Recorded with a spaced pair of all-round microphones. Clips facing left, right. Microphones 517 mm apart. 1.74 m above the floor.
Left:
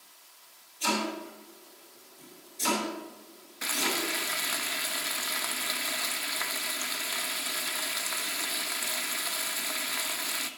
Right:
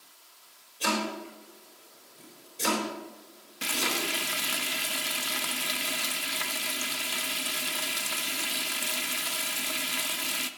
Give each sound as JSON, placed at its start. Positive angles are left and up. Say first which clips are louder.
{"t": 0.8, "sound": "chopping", "louder": "even", "side_deg": -80, "distance_m": 7.0}
{"t": 3.6, "sound": "frying", "louder": "even", "side_deg": -50, "distance_m": 0.9}